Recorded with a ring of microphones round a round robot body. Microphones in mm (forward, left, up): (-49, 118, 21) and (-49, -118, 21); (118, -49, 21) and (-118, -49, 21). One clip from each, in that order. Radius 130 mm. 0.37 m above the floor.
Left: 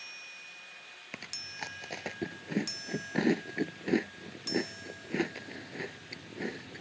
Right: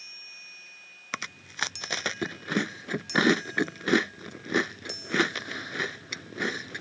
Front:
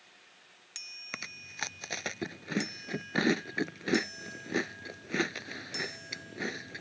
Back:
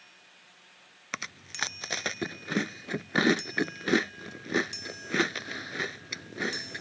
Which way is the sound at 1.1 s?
110° right.